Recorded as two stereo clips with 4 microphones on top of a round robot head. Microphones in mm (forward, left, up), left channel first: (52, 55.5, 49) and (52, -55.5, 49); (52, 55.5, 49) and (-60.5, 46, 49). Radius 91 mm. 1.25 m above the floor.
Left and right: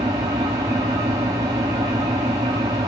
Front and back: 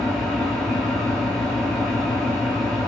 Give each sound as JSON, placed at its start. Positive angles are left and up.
{"t": 0.0, "sound": "an engine running", "azimuth_deg": -80, "distance_m": 0.8}